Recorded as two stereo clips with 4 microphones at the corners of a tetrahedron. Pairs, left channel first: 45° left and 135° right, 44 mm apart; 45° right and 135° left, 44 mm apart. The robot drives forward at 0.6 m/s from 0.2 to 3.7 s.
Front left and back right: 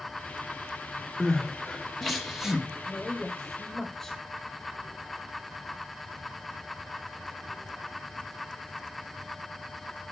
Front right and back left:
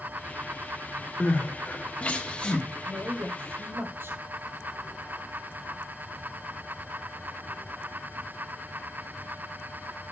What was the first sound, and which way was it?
Crying, 25° right.